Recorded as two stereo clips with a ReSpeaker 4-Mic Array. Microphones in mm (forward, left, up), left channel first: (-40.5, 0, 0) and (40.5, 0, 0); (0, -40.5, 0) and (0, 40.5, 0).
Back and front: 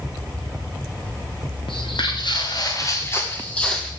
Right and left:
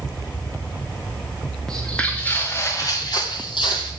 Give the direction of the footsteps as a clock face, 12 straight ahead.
6 o'clock.